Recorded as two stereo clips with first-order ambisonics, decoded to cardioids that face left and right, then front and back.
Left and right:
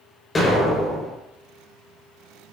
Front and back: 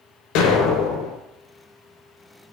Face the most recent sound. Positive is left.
turn(degrees=20)